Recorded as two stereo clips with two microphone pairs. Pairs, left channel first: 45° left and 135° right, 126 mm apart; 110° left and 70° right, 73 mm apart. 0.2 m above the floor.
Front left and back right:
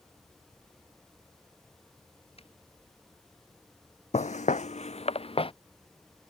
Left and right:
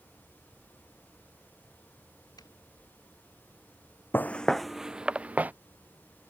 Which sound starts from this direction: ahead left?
Footsteps, at 4.1 s.